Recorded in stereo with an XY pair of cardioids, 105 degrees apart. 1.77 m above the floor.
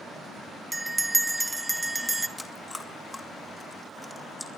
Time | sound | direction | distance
0.7 | a bell | 15° right | 1.5 m
2.4 | chewing | 10° left | 2.5 m